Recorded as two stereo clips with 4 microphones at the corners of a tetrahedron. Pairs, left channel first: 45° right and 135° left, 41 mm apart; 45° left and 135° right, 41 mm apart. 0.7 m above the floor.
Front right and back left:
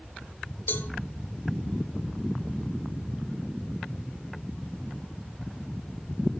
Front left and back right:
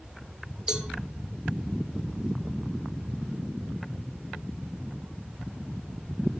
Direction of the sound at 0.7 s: 65° right.